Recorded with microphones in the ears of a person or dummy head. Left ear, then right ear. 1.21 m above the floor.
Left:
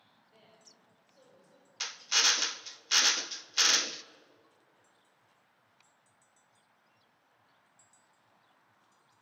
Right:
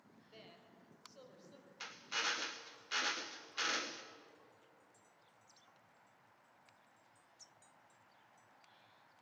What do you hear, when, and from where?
0.3 s a woman speaking: 50° right (ahead or behind), 4.5 m; by 1.7 s 45° right (ahead or behind), 5.5 m
1.8 s a drill: 65° left (ahead or behind), 0.7 m